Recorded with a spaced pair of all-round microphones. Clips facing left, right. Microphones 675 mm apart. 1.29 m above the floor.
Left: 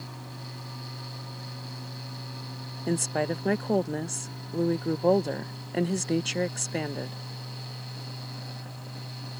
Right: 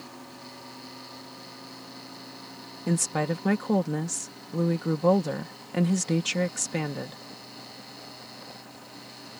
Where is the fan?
75° left (ahead or behind).